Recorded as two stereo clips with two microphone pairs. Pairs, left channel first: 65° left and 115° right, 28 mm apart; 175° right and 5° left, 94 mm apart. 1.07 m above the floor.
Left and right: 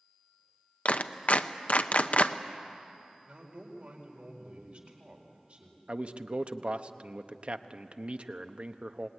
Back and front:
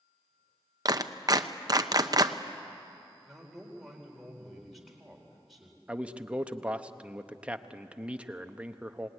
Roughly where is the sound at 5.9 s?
Right.